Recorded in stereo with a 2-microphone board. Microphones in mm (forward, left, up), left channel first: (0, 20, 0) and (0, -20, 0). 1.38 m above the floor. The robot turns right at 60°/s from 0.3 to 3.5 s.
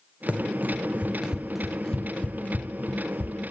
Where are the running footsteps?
35° right (ahead or behind), 1.8 m; by 3.4 s 20° left (ahead or behind), 2 m.